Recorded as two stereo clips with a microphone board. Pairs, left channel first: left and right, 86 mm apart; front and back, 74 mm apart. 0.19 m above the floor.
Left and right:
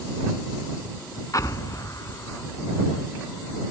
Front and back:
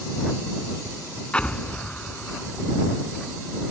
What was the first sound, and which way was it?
An explosion, 70° left.